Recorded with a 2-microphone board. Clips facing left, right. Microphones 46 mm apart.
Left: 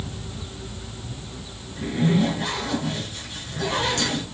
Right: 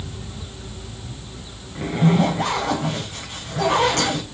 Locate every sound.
1.8 s a zipper: 70° right (ahead or behind), 4.5 m